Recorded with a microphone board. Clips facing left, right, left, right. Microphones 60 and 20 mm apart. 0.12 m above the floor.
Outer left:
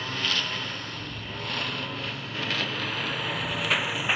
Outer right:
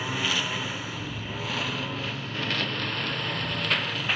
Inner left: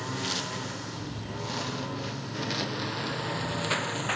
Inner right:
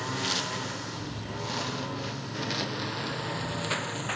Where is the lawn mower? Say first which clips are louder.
Outer right 1 dB, inner right 2 dB; 10° right (ahead or behind); by 4.2 s 15° left (ahead or behind).